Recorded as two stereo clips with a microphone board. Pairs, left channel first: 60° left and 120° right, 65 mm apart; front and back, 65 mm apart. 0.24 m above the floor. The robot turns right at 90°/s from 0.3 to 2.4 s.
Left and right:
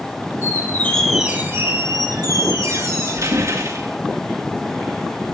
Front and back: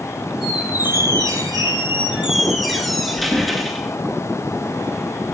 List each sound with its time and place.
0.4 s a squeak: 90° left, 3 m; by 4.0 s 90° right, 3 m